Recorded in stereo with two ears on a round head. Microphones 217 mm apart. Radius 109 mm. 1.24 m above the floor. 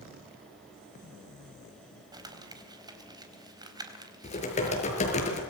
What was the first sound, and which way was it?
Crumpling, 15° right (ahead or behind).